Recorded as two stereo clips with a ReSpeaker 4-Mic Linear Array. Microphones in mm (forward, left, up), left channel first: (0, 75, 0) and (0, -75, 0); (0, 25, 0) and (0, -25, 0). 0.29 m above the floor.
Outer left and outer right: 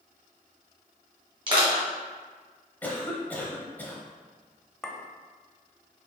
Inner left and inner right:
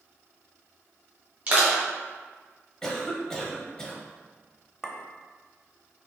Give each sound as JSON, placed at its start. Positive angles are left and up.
{"t": 1.5, "sound": "crushing", "side_deg": -35, "distance_m": 2.0}
{"t": 2.8, "sound": "a cough", "side_deg": 10, "distance_m": 1.1}
{"t": 4.8, "sound": "a clink", "side_deg": 5, "distance_m": 0.7}